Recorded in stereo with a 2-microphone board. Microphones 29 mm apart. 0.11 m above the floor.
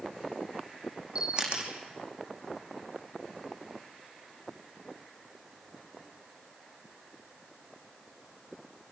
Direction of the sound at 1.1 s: 35° right (ahead or behind).